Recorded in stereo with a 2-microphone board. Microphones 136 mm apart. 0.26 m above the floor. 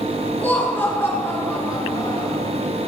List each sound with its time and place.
0.4 s laughter: 15° left (ahead or behind), 4 m; by 2.4 s 25° left (ahead or behind), 5 m